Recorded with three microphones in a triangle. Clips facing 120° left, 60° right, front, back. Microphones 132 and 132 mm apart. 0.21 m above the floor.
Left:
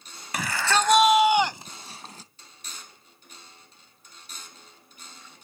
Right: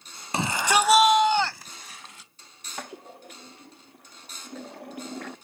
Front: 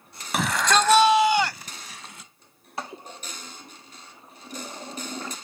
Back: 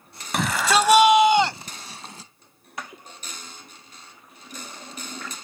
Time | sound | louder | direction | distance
0.3 | a shout | right 2 dB, back 1 dB | 85° right | ?
2.8 | a toilet flushing | right 13 dB, front 3 dB | 60° right | ?